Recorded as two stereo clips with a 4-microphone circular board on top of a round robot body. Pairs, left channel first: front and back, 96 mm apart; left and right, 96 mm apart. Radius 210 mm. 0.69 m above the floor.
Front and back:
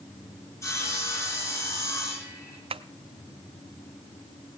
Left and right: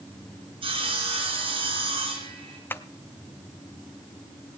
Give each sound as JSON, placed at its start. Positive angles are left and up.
{"t": 0.6, "sound": "sawing", "azimuth_deg": -60, "distance_m": 4.5}
{"t": 2.7, "sound": "tapping", "azimuth_deg": 160, "distance_m": 0.5}